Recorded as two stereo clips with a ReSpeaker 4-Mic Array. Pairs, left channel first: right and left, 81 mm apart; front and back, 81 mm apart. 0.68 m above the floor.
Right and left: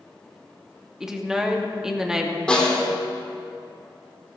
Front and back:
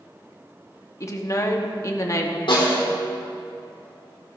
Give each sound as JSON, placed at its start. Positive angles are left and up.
{"t": 1.0, "sound": "a woman speaking", "azimuth_deg": 10, "distance_m": 1.2}
{"t": 2.5, "sound": "a snare drum", "azimuth_deg": -10, "distance_m": 3.5}